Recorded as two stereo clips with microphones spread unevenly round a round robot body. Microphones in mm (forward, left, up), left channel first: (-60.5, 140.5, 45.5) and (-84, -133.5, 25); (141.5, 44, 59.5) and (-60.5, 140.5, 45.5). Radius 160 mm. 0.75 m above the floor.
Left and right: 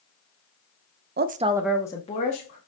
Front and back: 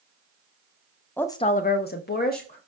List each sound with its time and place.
1.2 s a woman speaking: 110° right, 0.6 m; by 2.6 s 25° left, 1.4 m